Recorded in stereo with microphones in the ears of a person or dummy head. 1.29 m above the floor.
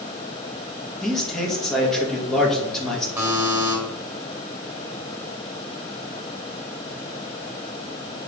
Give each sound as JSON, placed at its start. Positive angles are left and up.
{"t": 1.0, "sound": "a man speaking", "side_deg": 5, "distance_m": 1.9}
{"t": 3.2, "sound": "a buzzer", "side_deg": -5, "distance_m": 2.5}